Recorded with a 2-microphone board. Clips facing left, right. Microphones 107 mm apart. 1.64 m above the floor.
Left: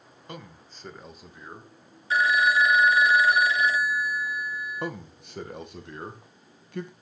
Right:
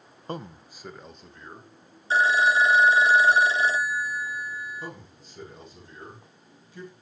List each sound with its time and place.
0.3 s a man speaking: 35° right (ahead or behind), 1.0 m; by 1.7 s 15° left (ahead or behind), 2.5 m
2.1 s a phone ringing: 30° right (ahead or behind), 0.5 m
4.8 s a man speaking: 65° left (ahead or behind), 1.9 m